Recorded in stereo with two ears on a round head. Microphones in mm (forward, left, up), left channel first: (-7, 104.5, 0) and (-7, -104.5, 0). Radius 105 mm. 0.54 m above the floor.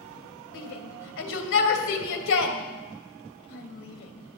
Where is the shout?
60° left (ahead or behind), 2.5 m.